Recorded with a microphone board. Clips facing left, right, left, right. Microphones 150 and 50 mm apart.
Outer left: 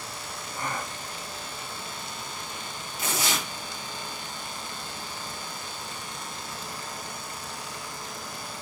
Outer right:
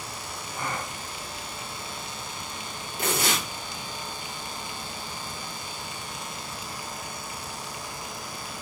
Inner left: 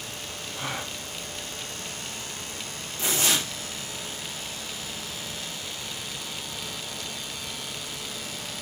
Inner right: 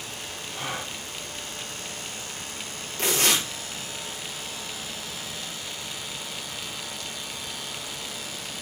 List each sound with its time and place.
0.5 s a gasp: 25° right (ahead or behind), 4 m
3.0 s tearing paper: 60° right (ahead or behind), 5 m